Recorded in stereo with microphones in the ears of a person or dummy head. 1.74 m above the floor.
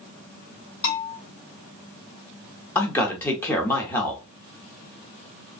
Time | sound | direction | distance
0.8 | a bell | 65° left (ahead or behind) | 1.5 m
2.8 | a man speaking | 10° left (ahead or behind) | 0.9 m